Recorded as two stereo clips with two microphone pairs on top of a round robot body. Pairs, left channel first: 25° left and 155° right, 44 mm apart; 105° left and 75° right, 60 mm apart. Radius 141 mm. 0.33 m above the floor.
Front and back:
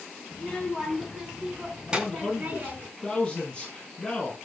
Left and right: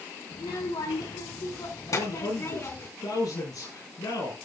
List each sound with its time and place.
0.3 s a child speaking: 100° left, 3 m; by 2.9 s 155° left, 3.5 m
1.9 s a man speaking: 95° left, 7.5 m